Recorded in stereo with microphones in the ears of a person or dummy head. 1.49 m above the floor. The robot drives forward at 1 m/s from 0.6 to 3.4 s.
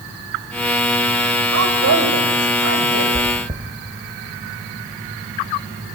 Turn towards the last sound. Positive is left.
turn(degrees=-20)  # may be behind; listen again after turning